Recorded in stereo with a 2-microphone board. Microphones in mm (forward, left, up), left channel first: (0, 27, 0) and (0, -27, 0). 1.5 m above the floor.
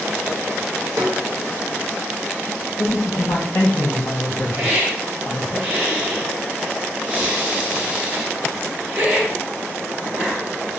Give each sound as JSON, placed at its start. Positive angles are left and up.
{"t": 1.0, "sound": "a snare drum", "side_deg": -60, "distance_m": 0.6}
{"t": 2.8, "sound": "a man speaking", "side_deg": 65, "distance_m": 0.6}
{"t": 4.6, "sound": "a hiss", "side_deg": -25, "distance_m": 0.9}